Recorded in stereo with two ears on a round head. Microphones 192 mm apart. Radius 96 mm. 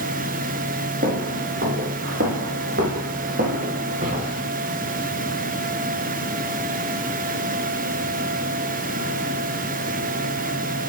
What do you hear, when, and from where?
1.0 s footsteps: 50° right (ahead or behind), 3 m; by 4.5 s 40° right (ahead or behind), 4 m